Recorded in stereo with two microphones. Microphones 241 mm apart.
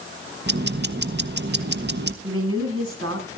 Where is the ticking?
45° right (ahead or behind), 0.9 m.